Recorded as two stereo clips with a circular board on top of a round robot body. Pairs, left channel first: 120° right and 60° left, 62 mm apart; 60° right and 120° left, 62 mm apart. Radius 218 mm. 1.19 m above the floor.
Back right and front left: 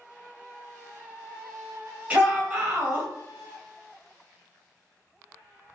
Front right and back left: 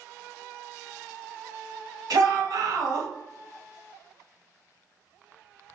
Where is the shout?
130° left, 1.9 m.